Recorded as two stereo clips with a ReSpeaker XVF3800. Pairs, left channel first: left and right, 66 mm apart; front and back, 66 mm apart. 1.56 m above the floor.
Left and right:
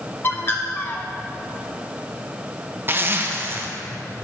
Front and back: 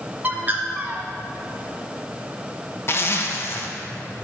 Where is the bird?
130° left, 1.1 m.